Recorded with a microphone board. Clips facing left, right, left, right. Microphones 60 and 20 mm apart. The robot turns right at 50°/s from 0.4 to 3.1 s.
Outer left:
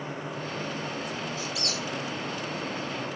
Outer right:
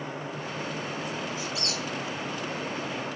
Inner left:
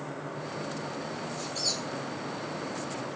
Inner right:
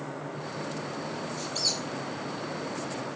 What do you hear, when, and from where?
1.4 s a squeak: 20° right (ahead or behind), 1.6 m; by 1.8 s 45° right (ahead or behind), 1.6 m